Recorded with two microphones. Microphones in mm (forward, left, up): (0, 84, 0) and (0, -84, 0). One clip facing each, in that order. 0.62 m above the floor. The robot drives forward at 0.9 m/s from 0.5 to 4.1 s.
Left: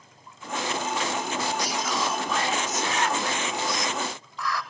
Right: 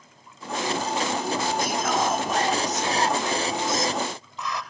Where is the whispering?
55° right (ahead or behind), 1.1 m; by 4.6 s 20° right (ahead or behind), 2.5 m.